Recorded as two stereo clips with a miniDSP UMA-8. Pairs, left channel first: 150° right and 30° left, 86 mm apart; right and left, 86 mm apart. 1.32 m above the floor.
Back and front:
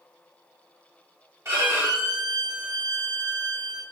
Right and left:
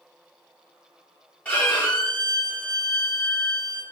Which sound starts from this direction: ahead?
A violin, at 1.4 s.